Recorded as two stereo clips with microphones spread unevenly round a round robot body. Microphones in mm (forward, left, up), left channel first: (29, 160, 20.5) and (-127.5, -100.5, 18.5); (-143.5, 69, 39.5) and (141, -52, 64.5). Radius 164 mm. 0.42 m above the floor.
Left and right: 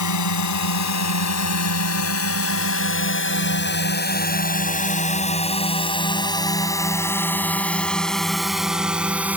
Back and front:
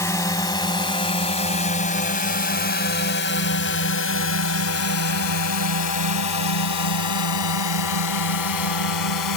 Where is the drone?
75° left; by 9.4 s 155° left.